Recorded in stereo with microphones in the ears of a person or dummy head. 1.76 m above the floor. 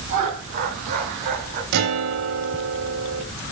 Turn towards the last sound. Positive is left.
turn(degrees=-60)  # may be behind; listen again after turning